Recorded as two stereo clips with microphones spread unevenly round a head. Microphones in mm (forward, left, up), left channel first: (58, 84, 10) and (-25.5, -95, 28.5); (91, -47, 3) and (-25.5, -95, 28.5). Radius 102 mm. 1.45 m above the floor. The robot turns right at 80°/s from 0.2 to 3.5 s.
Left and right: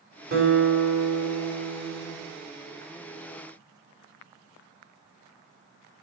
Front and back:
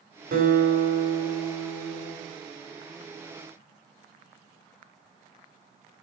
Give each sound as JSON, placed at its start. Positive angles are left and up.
{"t": 0.3, "sound": "a guitar", "azimuth_deg": -160, "distance_m": 3.5}